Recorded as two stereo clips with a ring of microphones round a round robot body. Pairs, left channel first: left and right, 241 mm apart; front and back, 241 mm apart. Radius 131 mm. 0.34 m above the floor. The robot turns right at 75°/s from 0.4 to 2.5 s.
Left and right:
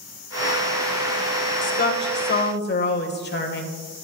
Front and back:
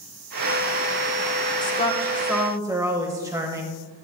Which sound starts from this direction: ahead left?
A woman speaking, at 1.6 s.